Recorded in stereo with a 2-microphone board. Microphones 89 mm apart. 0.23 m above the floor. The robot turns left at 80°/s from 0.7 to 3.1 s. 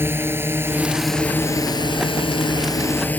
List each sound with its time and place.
0.0 s a drone: 25° right (ahead or behind); by 3.2 s 20° left (ahead or behind)